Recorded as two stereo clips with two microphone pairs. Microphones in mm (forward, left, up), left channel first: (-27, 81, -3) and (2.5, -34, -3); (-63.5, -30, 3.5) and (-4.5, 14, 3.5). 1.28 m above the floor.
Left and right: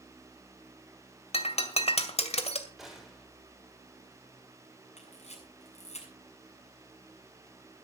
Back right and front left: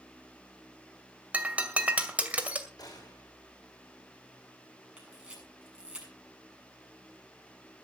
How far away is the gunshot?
About 6.5 m.